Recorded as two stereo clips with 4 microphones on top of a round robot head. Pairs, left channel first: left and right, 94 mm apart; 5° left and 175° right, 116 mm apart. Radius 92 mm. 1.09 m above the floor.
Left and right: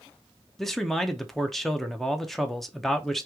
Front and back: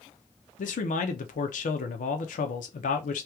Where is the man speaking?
5° left, 0.5 m.